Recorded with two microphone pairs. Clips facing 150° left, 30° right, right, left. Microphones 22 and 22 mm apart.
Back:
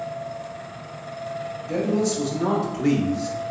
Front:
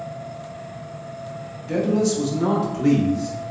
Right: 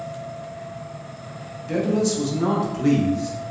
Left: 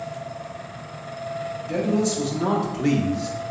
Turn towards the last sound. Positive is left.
turn(degrees=115)